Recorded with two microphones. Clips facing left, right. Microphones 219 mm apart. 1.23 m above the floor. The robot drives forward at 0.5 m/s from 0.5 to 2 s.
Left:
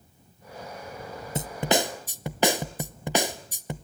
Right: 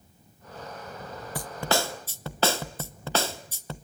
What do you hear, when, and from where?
1.4 s a snare drum: 25° left (ahead or behind), 0.6 m; by 3.8 s 15° left (ahead or behind), 0.9 m